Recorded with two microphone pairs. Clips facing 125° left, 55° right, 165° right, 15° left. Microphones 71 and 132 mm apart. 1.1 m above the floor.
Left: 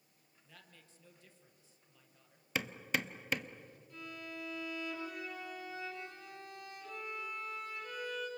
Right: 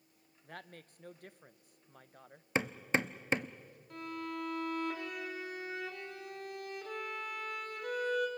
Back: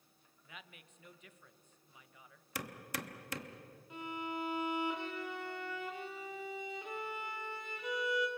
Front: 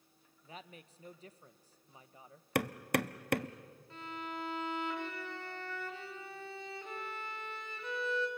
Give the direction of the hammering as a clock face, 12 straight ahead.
12 o'clock.